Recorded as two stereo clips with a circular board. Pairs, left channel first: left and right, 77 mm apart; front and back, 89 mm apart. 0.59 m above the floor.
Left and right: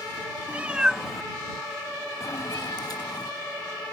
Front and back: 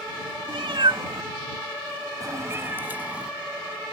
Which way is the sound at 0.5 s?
160° right.